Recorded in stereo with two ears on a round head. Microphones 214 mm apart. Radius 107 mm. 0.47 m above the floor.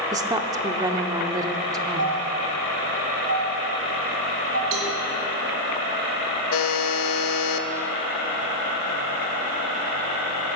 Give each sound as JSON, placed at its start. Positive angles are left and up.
{"t": 0.1, "sound": "a woman speaking", "side_deg": -15, "distance_m": 0.8}
{"t": 2.0, "sound": "a doorbell", "side_deg": -55, "distance_m": 3.0}
{"t": 4.7, "sound": "a cowbell", "side_deg": -60, "distance_m": 3.0}
{"t": 6.5, "sound": "a buzzer", "side_deg": 60, "distance_m": 1.0}